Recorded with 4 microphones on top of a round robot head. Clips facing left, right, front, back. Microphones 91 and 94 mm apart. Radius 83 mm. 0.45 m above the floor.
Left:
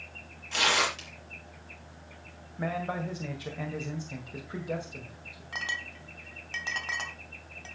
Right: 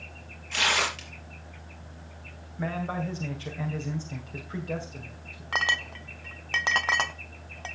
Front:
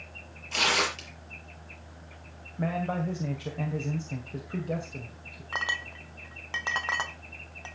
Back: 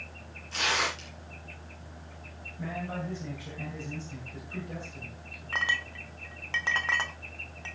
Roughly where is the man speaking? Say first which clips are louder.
Right 1 dB, front 6 dB; ahead.